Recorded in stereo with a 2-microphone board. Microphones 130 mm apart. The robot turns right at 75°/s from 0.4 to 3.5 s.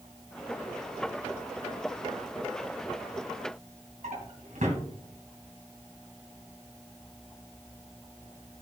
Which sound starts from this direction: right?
A drawer, at 4.0 s.